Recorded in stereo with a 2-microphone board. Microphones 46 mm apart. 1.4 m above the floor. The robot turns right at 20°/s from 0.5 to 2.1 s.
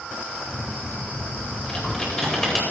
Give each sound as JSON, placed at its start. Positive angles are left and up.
{"t": 1.7, "sound": "typing on a keyboard", "side_deg": 20, "distance_m": 4.5}